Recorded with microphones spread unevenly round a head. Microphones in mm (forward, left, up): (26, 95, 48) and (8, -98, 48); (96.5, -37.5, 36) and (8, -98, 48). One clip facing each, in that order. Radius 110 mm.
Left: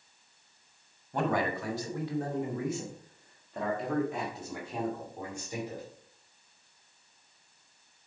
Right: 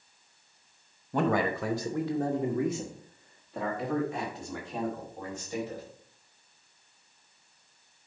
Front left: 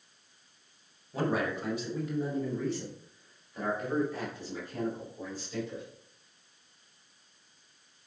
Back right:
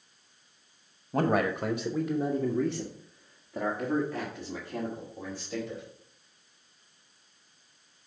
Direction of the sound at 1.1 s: 115° right.